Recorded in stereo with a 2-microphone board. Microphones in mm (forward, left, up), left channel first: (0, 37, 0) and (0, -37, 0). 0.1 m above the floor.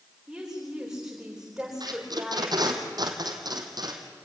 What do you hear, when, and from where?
0.3 s a woman speaking: 5° right (ahead or behind), 9 m
1.8 s tape being pulled: 70° right (ahead or behind), 2.5 m